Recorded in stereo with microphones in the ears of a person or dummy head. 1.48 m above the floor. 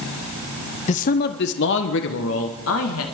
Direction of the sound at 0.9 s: 40° left (ahead or behind).